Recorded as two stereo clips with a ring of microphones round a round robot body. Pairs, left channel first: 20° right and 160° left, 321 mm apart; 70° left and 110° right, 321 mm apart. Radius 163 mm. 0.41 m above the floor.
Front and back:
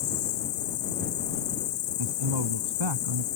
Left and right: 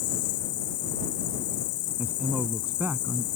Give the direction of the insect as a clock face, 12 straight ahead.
11 o'clock.